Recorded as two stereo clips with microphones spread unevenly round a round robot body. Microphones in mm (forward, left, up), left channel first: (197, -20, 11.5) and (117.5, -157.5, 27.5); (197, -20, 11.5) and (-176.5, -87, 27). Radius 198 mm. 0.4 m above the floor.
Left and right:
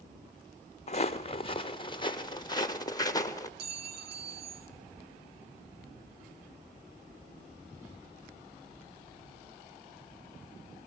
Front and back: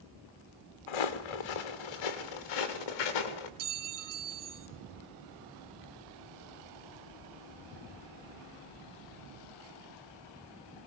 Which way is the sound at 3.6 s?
135° right.